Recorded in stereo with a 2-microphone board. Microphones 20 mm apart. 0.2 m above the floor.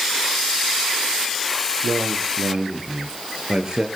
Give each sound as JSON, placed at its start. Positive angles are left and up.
{"t": 1.8, "sound": "a man speaking", "side_deg": -50, "distance_m": 4.0}